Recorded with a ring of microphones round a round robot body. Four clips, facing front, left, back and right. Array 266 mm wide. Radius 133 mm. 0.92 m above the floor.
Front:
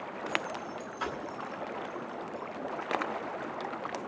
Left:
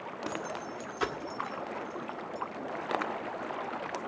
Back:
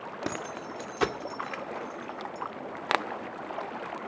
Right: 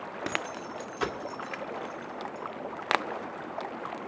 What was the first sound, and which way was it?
Keys jangling, 160° right.